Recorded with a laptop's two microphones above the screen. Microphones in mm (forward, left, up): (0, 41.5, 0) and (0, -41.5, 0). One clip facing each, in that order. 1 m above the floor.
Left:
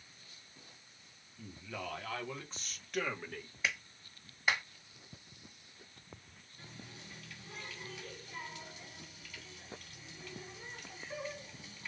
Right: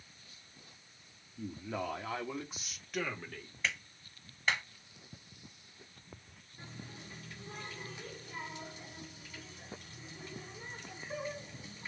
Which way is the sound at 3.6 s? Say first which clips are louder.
Even; 10° left (ahead or behind).